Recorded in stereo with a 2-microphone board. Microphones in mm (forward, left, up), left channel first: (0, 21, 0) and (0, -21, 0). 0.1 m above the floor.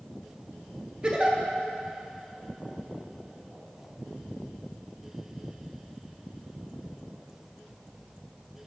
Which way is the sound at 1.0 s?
30° right (ahead or behind).